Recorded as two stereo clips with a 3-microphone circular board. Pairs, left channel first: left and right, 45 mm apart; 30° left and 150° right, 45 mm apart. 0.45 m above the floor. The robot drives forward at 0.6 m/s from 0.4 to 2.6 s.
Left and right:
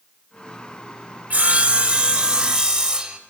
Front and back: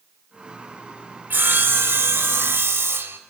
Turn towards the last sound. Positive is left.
turn(degrees=-160)